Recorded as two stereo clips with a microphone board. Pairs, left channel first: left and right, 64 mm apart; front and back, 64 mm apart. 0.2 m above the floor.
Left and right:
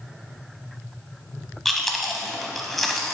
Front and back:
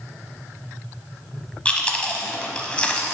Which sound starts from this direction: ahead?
Chewing, at 1.6 s.